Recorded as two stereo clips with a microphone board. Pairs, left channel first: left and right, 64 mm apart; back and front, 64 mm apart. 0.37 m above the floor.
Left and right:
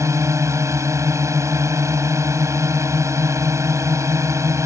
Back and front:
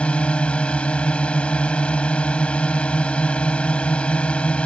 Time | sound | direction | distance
0.0 | a drone | 110° right | ?